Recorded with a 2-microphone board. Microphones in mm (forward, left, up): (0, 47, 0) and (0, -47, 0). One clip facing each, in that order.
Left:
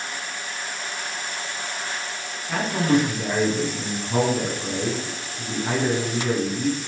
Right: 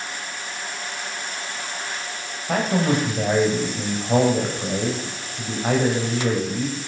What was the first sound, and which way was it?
A man speaking, 50° right (ahead or behind).